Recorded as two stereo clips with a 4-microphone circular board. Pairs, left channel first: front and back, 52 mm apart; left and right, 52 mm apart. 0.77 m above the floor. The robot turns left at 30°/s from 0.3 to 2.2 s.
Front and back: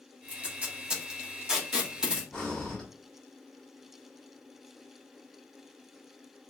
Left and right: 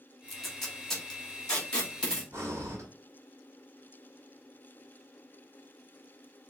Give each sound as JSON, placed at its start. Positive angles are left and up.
{"t": 0.3, "sound": "tape being pulled", "azimuth_deg": 175, "distance_m": 1.0}
{"t": 2.3, "sound": "breathing", "azimuth_deg": -75, "distance_m": 1.4}